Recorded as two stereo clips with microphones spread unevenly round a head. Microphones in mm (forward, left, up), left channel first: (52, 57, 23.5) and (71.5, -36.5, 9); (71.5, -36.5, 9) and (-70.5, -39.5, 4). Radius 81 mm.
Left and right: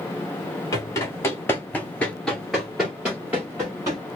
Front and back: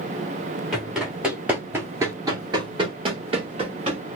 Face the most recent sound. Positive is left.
turn(degrees=-145)